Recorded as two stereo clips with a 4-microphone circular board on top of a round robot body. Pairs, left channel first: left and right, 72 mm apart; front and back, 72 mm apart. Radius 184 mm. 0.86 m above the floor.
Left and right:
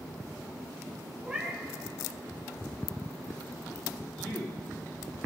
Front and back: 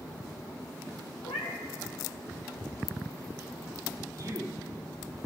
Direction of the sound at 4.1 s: 130° left.